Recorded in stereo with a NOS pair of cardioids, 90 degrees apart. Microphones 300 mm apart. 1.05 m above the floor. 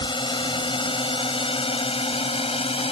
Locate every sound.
0.0 s a drone: 15° left; by 2.9 s 20° left